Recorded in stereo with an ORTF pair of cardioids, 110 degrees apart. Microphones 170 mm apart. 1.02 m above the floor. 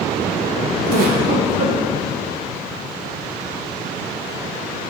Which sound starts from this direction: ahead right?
A giggle, at 0.9 s.